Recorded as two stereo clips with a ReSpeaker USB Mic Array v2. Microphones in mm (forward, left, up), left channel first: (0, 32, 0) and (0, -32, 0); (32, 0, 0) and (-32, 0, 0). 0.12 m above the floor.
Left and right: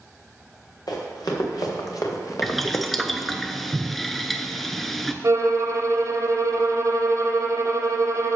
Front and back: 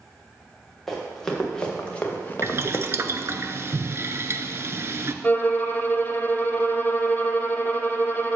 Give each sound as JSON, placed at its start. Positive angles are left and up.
{"t": 0.9, "sound": "running footsteps", "azimuth_deg": 85, "distance_m": 3.0}
{"t": 2.4, "sound": "boiling", "azimuth_deg": 175, "distance_m": 0.6}
{"t": 5.2, "sound": "a violin", "azimuth_deg": -60, "distance_m": 1.1}